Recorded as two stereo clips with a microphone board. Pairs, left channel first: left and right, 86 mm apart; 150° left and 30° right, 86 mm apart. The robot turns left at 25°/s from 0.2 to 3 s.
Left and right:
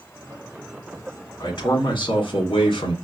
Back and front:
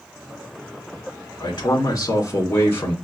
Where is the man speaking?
125° left, 2.0 m; by 2.9 s 85° left, 2.0 m.